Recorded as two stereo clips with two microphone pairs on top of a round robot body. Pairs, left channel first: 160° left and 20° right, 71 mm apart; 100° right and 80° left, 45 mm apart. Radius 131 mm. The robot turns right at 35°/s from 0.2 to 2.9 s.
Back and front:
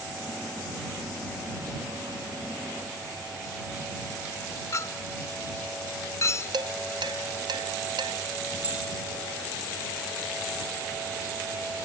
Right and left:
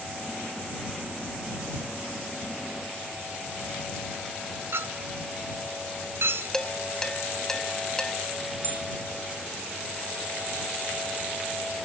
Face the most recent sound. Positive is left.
turn(degrees=50)